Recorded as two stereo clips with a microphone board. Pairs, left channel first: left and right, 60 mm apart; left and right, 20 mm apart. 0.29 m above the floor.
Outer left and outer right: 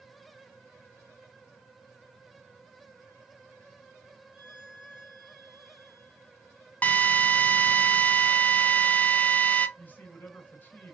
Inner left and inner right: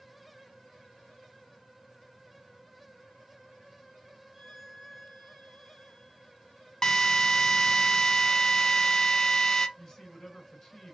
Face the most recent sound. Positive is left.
turn(degrees=30)  # may be behind; listen again after turning